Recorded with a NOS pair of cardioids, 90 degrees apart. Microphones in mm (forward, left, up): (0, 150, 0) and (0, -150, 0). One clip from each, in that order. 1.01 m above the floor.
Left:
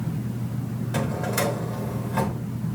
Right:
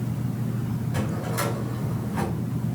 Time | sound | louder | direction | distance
0.9 | a drawer | left 4 dB | 60° left | 4 m